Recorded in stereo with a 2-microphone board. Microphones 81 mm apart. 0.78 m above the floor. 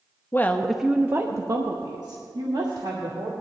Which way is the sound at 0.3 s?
30° left (ahead or behind).